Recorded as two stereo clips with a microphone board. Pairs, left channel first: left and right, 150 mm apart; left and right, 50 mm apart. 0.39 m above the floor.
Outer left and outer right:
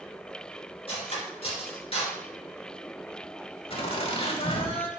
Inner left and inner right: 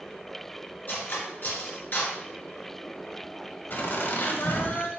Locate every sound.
0.9 s cutlery clinking: 40° left (ahead or behind), 3.5 m
3.7 s laughter: 45° left (ahead or behind), 1.7 m